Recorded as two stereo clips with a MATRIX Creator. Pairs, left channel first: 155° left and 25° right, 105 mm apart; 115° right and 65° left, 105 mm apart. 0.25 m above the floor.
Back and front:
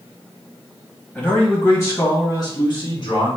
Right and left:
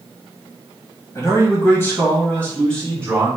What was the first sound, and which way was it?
A man speaking, 135° right.